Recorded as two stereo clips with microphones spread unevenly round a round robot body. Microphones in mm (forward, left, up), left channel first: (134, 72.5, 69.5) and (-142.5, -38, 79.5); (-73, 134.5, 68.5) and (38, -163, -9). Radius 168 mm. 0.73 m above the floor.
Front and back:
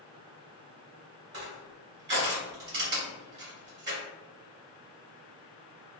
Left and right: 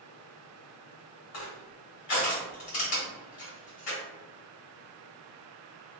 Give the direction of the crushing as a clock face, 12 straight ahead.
7 o'clock.